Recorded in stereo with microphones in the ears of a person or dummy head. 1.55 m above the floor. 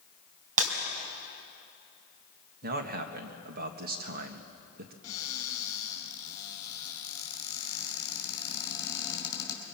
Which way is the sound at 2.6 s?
45° right (ahead or behind).